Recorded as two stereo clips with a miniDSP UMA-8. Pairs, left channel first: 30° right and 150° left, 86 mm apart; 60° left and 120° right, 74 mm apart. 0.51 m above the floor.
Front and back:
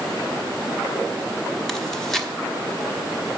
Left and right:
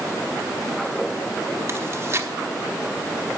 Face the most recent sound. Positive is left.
turn(degrees=-115)